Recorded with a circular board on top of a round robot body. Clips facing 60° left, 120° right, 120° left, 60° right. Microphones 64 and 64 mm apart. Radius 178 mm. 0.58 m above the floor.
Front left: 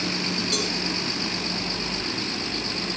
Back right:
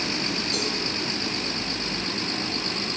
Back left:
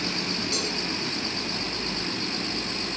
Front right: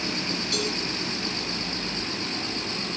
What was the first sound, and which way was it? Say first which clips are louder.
A cowbell: front left 1 dB, front right 2 dB; 55° left.